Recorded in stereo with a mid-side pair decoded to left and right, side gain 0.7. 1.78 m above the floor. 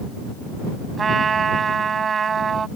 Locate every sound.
1.0 s a trumpet: 25° right